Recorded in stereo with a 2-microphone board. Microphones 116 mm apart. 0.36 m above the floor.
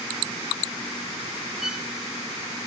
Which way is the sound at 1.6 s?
5° right (ahead or behind).